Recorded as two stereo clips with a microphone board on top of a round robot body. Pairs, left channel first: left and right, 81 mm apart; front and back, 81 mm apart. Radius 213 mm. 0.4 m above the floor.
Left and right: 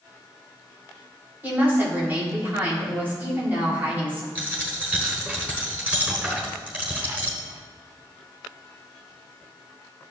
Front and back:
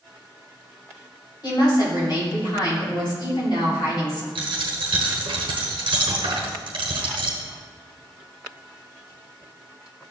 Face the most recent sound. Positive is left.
turn(degrees=-165)